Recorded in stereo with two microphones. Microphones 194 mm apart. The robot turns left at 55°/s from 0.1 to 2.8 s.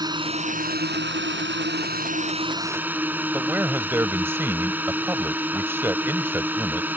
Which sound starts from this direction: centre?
A man speaking, at 3.3 s.